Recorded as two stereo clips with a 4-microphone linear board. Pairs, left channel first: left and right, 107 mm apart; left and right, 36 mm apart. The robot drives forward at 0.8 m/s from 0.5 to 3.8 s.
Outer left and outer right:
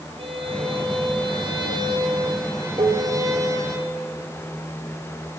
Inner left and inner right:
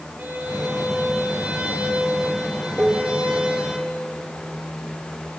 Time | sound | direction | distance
0.2 | a violin | 55° right (ahead or behind) | 3 m
2.8 | dishes clattering | 55° right (ahead or behind) | 1.9 m